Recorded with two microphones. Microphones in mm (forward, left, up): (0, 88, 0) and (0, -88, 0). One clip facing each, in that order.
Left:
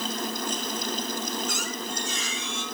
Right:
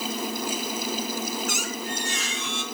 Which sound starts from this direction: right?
A squeak, at 1.5 s.